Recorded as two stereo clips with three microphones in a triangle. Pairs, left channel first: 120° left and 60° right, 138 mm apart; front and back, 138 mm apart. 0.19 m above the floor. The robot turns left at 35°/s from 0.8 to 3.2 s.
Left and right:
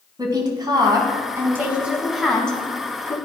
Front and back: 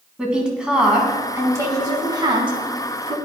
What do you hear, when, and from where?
0.2 s a woman speaking: 100° right, 1.2 m; by 3.2 s 175° left, 1.2 m